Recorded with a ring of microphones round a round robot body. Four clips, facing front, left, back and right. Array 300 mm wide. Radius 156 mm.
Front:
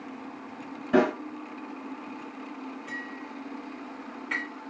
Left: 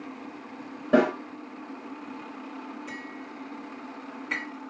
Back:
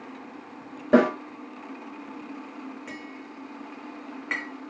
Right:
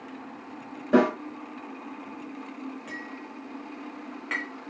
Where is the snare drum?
Straight behind, 3 m.